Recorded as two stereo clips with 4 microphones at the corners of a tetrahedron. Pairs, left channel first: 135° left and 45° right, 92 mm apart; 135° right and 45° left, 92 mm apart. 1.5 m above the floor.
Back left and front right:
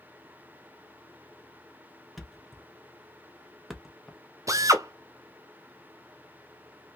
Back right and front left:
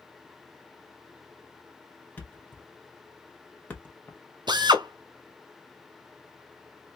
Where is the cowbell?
I don't hear a cowbell.